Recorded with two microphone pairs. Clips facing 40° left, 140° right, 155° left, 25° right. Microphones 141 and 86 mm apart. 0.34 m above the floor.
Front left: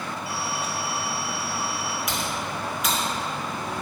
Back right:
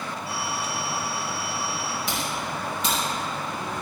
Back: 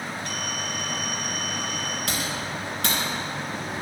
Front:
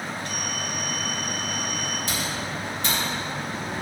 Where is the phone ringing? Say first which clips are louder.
Even, even; straight behind, 4 m.